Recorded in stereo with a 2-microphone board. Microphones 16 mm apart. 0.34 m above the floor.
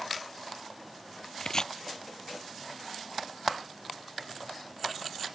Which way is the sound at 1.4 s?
45° left (ahead or behind).